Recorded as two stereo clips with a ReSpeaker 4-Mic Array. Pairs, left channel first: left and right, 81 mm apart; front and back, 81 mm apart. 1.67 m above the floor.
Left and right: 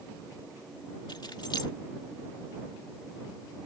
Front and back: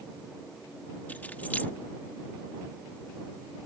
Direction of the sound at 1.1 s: 70° left.